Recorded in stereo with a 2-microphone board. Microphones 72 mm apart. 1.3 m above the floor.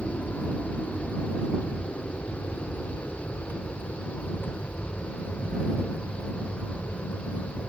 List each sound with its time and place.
0.0 s an aircraft: 20° left (ahead or behind); by 7.7 s 30° left (ahead or behind)